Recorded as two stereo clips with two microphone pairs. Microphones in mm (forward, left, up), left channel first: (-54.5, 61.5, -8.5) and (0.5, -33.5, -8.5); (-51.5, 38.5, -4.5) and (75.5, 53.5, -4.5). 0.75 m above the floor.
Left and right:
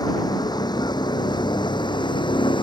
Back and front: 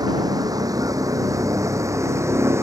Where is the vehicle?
65° left; by 2.6 s 75° left.